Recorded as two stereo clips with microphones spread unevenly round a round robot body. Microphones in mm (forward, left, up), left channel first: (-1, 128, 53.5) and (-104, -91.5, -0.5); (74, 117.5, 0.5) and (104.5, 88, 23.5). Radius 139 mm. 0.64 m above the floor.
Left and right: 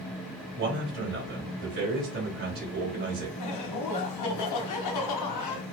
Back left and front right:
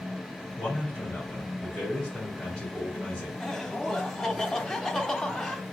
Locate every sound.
0.6 s a man speaking: 135° right, 2.5 m
3.4 s laughter: 65° left, 1.4 m